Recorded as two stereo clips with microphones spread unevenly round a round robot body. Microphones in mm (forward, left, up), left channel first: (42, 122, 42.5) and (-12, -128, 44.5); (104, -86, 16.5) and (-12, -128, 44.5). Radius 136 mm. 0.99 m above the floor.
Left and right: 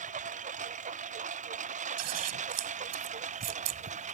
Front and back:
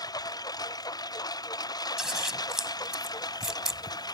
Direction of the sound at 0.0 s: 40° right.